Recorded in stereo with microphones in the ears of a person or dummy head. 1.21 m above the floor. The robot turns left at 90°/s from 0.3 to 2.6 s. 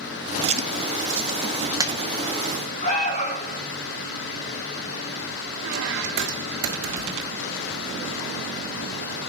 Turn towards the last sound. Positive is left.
turn(degrees=-65)  # may be behind; listen again after turning